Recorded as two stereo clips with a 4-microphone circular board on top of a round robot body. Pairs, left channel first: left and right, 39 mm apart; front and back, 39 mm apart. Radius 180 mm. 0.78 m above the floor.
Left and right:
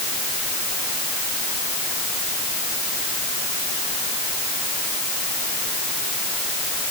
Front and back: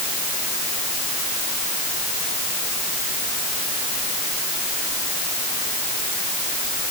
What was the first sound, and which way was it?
Only background noise.